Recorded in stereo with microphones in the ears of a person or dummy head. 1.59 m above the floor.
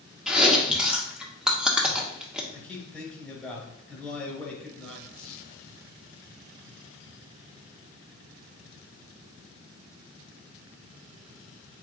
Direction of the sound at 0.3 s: 5° right (ahead or behind).